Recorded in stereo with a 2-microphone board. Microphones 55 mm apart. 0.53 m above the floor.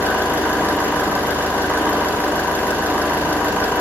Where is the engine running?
35° right (ahead or behind), 9 m.